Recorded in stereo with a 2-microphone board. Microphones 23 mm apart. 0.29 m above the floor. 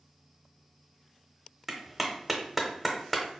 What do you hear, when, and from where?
1.7 s a clap: 5° right (ahead or behind), 0.8 m